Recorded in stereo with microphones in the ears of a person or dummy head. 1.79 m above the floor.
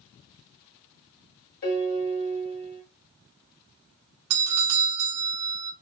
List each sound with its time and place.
1.6 s a piano: 55° left (ahead or behind), 1.3 m
4.3 s a doorbell: 90° right, 0.6 m